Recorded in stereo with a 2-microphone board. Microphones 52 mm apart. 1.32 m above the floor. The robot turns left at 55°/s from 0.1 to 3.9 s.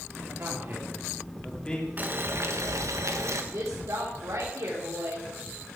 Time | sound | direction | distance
0.3 | a man speaking | 60° right (ahead or behind) | 3.5 m
2.0 | boiling | 35° right | 1.5 m
3.5 | a woman speaking | 75° right (ahead or behind) | 3 m